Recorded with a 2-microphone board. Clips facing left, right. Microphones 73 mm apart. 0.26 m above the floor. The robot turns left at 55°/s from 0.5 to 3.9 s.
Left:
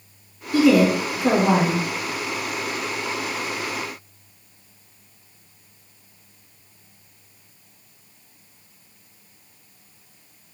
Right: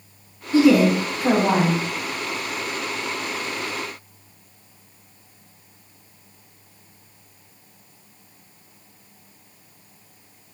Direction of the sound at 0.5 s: 135° right.